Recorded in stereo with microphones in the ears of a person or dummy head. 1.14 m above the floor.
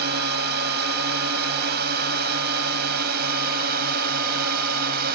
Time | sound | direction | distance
0.0 | a drone | 60° right (ahead or behind) | ?